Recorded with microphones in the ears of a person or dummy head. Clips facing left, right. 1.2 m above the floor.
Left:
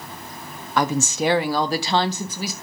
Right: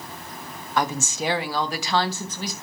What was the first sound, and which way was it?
A woman speaking, 65° left (ahead or behind).